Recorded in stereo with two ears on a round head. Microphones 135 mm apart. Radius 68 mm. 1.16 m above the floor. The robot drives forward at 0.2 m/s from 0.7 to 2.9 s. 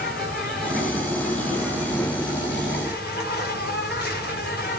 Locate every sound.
0.0 s an insect: 65° left (ahead or behind), 5 m; by 4.8 s 70° left (ahead or behind), 5 m